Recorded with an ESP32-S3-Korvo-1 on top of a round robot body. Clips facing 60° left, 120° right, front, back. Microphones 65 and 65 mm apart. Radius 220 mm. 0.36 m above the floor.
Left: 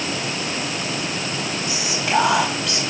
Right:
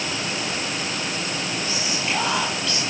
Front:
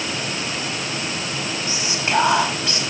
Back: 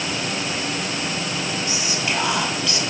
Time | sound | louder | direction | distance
1.7 | whispering | left 7 dB, front 2 dB | 55° left | 5 m